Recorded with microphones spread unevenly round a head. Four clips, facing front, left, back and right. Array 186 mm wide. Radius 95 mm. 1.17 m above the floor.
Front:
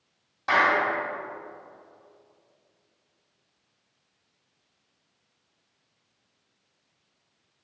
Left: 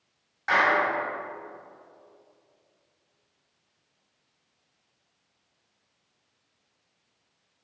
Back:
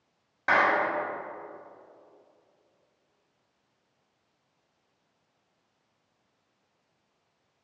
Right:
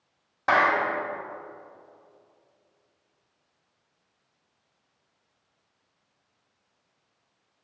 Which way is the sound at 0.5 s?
115° right.